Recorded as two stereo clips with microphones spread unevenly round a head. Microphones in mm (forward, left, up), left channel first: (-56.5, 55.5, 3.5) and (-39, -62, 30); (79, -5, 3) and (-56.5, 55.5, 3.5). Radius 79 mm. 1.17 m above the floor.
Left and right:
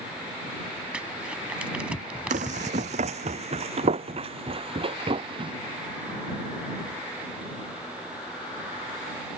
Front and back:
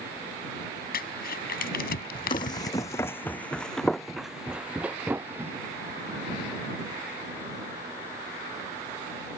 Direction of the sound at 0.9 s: Straight ahead.